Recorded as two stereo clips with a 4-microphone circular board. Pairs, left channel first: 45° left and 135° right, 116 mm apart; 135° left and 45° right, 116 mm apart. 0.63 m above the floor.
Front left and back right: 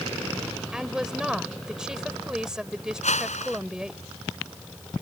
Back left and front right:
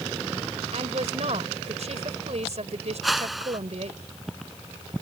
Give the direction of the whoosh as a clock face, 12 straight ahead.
11 o'clock.